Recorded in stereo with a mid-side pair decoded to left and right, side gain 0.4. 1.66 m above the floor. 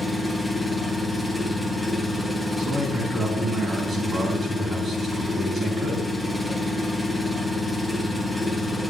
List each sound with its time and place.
0.0 s an engine running: 10° right, 1.5 m
2.6 s a man speaking: 50° right, 4 m